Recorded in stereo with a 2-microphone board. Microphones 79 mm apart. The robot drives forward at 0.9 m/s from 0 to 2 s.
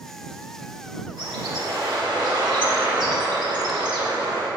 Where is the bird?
80° right, 1.7 m; by 4.5 s 70° right (ahead or behind), 1.8 m.